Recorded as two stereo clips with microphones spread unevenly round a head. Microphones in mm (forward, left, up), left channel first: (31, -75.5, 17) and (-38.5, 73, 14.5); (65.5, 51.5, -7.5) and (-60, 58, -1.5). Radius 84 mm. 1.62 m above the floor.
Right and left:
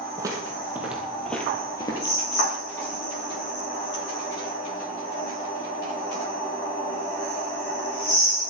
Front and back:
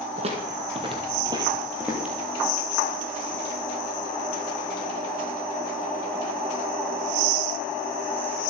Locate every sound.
0.2 s footsteps: straight behind, 2.5 m; by 2.2 s 105° right, 2.0 m